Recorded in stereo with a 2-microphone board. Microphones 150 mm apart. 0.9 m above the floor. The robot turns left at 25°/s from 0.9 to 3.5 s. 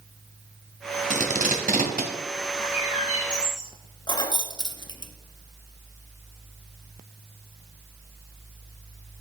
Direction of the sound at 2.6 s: 40° left (ahead or behind).